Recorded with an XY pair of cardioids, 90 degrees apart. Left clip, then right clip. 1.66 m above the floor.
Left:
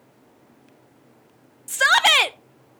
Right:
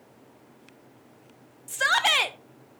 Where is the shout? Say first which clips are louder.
Left 6 dB; 50° left, 0.6 m.